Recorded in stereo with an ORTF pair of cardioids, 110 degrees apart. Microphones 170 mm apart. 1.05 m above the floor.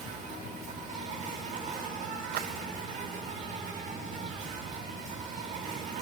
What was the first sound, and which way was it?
An insect, 45° right.